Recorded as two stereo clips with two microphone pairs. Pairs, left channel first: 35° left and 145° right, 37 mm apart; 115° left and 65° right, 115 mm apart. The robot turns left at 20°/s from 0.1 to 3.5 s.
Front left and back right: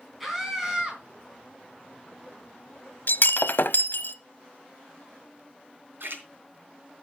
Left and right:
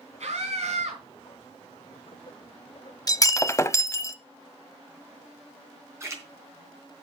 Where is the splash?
130° right, 3.5 m.